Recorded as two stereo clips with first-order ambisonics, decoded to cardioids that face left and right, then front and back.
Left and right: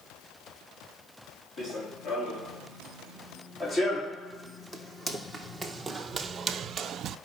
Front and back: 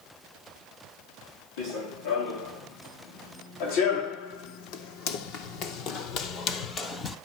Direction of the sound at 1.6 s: 30° left.